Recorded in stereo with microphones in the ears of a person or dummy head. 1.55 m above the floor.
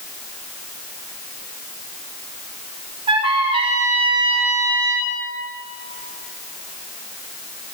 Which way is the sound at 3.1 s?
35° right (ahead or behind).